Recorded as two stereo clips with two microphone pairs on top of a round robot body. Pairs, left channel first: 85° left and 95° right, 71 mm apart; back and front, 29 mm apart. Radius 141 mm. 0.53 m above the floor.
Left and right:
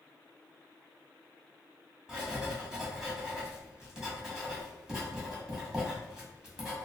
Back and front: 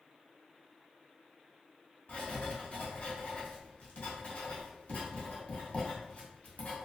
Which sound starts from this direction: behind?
Writing, at 2.1 s.